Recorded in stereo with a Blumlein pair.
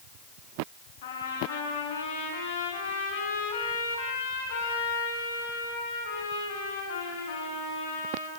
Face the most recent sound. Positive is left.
turn(degrees=55)